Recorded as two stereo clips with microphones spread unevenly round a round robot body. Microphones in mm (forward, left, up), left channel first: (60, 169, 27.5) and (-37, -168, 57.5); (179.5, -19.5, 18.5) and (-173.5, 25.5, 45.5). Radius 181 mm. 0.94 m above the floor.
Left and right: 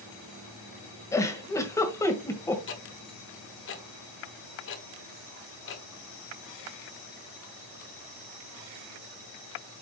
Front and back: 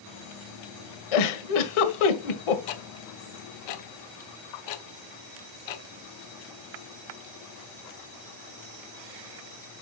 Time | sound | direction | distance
1.1 | a giggle | 10° right | 1.5 m
2.7 | ticking | 15° left | 1.3 m